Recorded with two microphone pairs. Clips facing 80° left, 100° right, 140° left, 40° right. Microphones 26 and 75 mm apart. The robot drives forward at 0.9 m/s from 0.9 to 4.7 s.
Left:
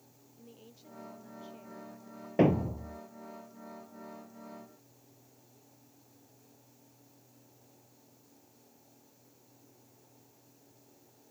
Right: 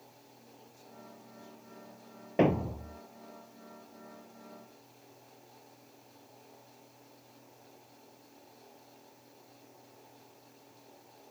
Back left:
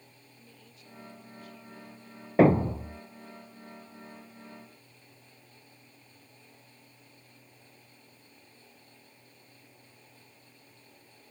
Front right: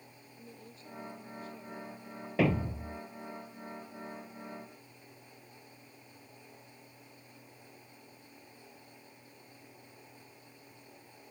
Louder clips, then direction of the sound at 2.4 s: Left 1 dB, back left 9 dB; straight behind.